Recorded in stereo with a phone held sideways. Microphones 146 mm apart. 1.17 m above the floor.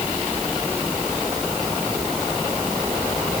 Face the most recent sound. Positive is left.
No sound to turn to.